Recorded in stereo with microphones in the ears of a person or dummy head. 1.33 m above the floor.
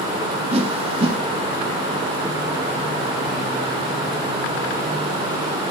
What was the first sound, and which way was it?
A whoosh, 40° right (ahead or behind).